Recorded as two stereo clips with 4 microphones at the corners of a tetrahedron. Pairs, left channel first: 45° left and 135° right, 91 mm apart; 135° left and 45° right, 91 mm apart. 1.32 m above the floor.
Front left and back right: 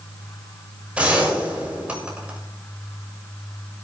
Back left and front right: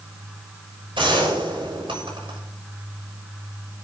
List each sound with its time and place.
0.9 s a gunshot: 60° right, 7 m